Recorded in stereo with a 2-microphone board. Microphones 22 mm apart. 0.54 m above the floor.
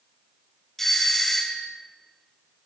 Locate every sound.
0.8 s a doorbell: 10° left (ahead or behind), 1.6 m